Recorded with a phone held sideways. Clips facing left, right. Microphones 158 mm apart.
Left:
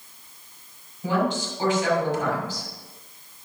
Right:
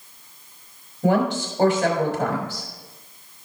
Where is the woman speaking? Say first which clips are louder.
Right 4 dB; 65° right (ahead or behind), 4 m.